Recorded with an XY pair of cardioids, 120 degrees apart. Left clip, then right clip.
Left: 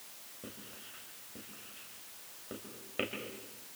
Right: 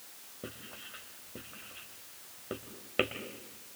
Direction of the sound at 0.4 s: 40° right.